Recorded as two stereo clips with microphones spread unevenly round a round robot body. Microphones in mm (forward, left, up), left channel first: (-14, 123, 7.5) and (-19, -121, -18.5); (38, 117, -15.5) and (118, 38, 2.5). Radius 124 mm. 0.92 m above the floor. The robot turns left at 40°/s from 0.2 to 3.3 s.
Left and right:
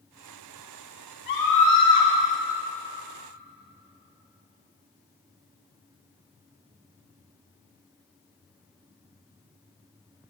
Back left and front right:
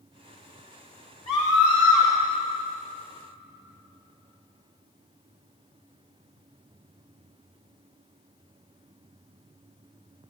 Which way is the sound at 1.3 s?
140° left.